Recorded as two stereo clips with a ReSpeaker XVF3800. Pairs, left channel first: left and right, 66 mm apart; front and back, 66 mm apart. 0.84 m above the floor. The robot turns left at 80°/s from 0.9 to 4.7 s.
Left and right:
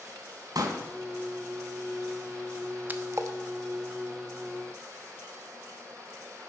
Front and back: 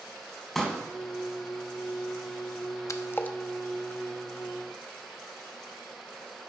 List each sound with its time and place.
0.6 s a pop: 90° right, 3 m
2.9 s a splash: 30° right, 0.9 m; by 3.4 s 70° right, 0.9 m